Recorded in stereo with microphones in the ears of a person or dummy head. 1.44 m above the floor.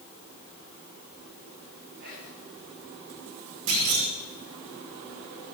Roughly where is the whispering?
Right.